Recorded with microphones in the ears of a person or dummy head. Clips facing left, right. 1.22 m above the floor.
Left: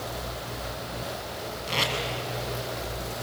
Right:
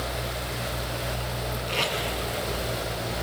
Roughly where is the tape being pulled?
Left.